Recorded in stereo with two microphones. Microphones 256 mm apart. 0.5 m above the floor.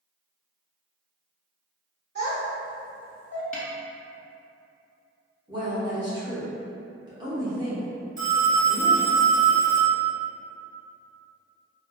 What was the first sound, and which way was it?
A child speaking, 40° right (ahead or behind).